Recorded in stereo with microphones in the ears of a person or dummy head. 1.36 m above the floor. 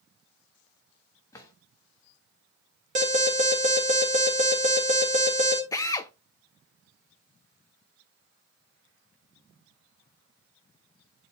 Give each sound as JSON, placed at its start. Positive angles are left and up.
{"t": 1.3, "sound": "a drawer", "side_deg": 25, "distance_m": 1.4}
{"t": 3.0, "sound": "an alarm", "side_deg": -30, "distance_m": 1.8}
{"t": 5.7, "sound": "a drill", "side_deg": 25, "distance_m": 0.6}